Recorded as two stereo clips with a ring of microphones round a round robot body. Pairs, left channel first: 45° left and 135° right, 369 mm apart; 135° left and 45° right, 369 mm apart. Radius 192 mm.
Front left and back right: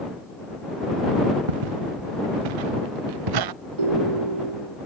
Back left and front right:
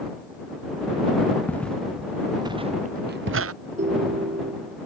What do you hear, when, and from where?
1.5 s footsteps: 140° right; by 3.5 s 100° right
3.8 s a ringtone: 115° right